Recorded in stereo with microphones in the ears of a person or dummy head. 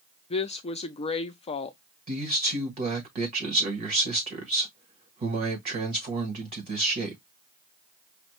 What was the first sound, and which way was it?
A woman speaking, 30° left (ahead or behind).